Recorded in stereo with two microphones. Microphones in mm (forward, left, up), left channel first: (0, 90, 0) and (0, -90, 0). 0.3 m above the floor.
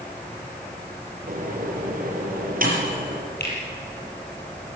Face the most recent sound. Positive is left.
turn(degrees=65)  # may be behind; listen again after turning